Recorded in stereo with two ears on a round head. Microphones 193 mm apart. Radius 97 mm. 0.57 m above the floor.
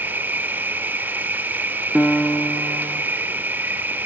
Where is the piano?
5° left (ahead or behind), 0.8 m.